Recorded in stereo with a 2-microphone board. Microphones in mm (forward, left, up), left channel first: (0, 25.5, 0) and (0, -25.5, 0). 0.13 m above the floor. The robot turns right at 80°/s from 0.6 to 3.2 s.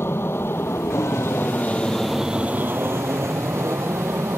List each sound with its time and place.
0.0 s an aircraft: 60° left; by 4.4 s 90° right